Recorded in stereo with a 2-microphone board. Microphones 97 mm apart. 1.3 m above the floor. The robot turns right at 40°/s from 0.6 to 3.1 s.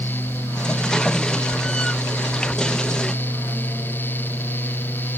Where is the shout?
I don't hear a shout.